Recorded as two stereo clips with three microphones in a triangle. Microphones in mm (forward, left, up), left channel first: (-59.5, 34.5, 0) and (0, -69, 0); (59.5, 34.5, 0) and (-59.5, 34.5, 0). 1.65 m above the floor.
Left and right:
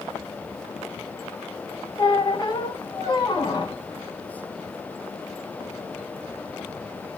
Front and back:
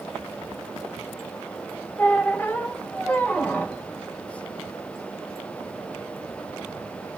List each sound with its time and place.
2.0 s a squeak: 75° left, 1.2 m